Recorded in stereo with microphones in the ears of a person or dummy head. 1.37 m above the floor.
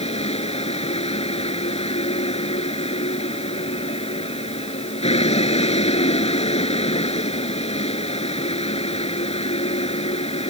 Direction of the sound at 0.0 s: 35° left (ahead or behind).